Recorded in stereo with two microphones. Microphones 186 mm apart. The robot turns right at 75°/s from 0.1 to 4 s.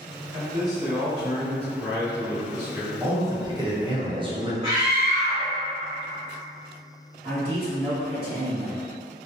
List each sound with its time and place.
0.3 s a man speaking: 65° right, 1.7 m; by 2.9 s 130° left, 1.7 m
3.0 s a man speaking: 10° right (ahead or behind), 0.7 m; by 4.5 s 25° right (ahead or behind), 0.7 m
4.6 s a scream: 30° right (ahead or behind), 1.6 m
7.2 s a man speaking: 30° right (ahead or behind), 1.7 m